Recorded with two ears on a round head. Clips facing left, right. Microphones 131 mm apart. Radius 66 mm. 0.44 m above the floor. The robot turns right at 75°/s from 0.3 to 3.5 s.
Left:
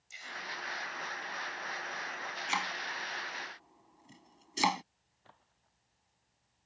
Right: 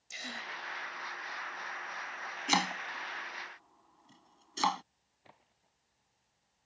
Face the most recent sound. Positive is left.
turn(degrees=-15)  # may be behind; listen again after turning